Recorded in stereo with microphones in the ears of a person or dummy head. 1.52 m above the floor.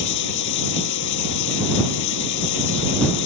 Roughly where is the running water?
Left.